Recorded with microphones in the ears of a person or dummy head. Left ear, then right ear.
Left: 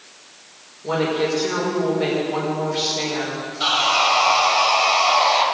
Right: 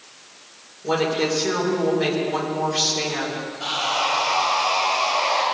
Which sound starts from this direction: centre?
A woman speaking, at 0.8 s.